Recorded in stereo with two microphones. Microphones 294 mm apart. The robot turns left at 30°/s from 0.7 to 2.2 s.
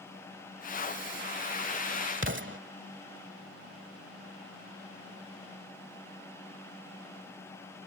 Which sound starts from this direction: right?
An explosion, at 2.2 s.